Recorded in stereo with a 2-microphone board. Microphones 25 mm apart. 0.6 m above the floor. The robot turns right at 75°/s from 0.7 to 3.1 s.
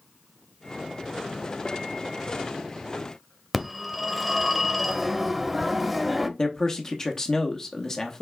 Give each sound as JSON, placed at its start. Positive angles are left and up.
{"t": 3.5, "sound": "a phone ringing", "side_deg": 0, "distance_m": 0.6}
{"t": 6.4, "sound": "a man speaking", "side_deg": 20, "distance_m": 0.7}